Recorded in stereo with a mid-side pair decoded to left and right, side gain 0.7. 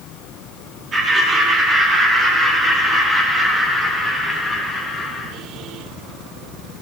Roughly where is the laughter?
Ahead right.